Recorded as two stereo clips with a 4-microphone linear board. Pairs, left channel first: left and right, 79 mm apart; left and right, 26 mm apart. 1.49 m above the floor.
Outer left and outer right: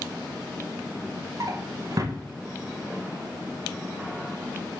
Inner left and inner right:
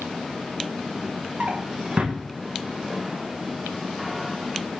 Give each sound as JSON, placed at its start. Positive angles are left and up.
{"t": 1.4, "sound": "a drawer", "side_deg": -45, "distance_m": 0.8}